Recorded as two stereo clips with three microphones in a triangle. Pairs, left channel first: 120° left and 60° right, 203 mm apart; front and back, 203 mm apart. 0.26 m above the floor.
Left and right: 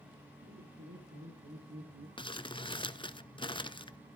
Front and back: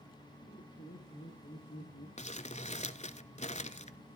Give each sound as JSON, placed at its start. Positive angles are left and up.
{"t": 0.4, "sound": "laughter", "azimuth_deg": -50, "distance_m": 7.5}
{"t": 2.2, "sound": "crumpling", "azimuth_deg": 50, "distance_m": 0.6}